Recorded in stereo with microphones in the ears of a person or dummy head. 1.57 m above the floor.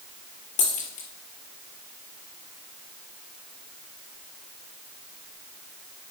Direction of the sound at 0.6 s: 35° left (ahead or behind).